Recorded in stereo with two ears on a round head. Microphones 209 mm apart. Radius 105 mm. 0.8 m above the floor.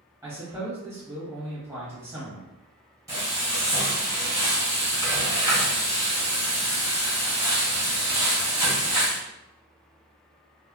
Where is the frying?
15° right (ahead or behind), 1.2 m.